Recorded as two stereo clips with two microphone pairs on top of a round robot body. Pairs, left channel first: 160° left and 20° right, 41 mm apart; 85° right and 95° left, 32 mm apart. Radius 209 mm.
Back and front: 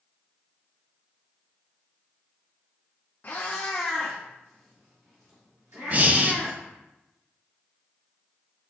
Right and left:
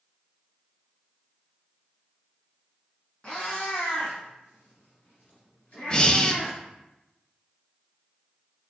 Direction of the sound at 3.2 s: 150° right.